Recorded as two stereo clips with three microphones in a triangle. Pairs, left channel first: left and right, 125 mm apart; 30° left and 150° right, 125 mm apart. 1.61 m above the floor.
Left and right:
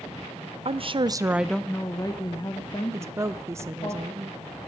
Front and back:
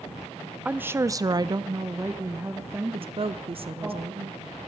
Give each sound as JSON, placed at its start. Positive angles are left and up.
{"t": 0.7, "sound": "a woman speaking", "azimuth_deg": -75, "distance_m": 0.8}
{"t": 2.9, "sound": "a woman speaking", "azimuth_deg": -150, "distance_m": 0.8}